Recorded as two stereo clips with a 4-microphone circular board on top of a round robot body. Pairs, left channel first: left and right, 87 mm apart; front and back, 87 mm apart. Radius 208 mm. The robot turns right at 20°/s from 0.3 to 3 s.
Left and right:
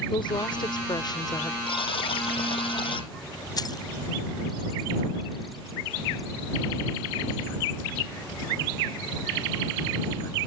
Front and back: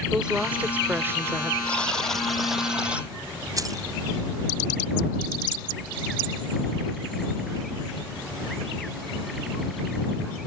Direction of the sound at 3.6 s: 130° left.